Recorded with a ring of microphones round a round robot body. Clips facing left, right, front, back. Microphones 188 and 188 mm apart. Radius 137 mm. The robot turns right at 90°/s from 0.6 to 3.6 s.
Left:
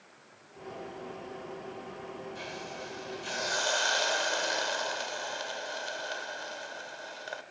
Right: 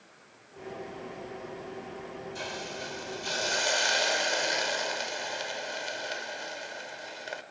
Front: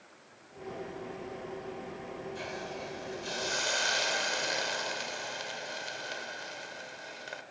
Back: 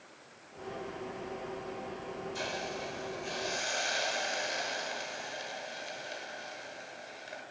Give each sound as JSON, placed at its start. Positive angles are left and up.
{"t": 2.4, "sound": "a hiss", "azimuth_deg": -135, "distance_m": 1.5}